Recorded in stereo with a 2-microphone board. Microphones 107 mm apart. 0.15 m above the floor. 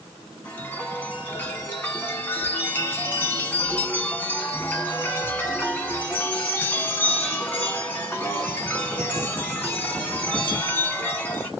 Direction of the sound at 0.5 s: 15° left (ahead or behind).